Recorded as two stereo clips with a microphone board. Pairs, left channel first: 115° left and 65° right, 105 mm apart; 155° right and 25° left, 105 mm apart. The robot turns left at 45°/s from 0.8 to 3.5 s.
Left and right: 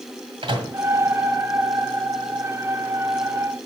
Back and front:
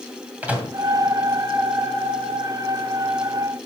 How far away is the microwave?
About 2.0 m.